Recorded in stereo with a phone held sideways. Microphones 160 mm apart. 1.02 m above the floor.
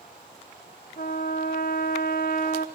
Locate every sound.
1.0 s a trumpet: 70° left (ahead or behind), 2.5 m